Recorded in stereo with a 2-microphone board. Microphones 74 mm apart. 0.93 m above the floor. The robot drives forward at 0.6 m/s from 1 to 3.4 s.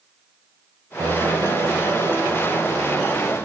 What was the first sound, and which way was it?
A piano, 55° right (ahead or behind).